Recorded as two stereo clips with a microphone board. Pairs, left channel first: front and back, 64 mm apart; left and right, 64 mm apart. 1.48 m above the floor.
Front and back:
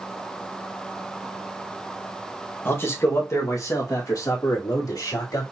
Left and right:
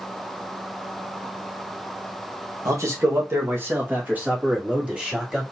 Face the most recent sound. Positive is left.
turn(degrees=-15)